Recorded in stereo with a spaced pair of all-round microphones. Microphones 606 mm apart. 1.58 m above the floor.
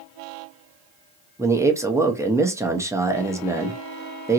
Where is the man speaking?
5° right (ahead or behind), 0.6 m.